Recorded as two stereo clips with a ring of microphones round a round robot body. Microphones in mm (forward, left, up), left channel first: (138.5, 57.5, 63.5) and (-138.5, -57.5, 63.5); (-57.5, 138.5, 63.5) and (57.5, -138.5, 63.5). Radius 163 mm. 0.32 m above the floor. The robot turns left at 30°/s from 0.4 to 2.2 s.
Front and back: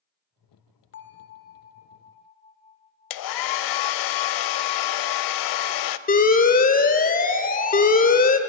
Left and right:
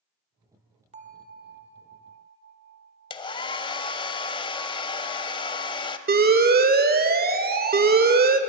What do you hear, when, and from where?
0.9 s a bell: 10° right, 0.8 m; by 3.2 s 45° right, 0.8 m
3.1 s a hair dryer: 40° left, 0.5 m
6.1 s an alarm: 25° right, 1.0 m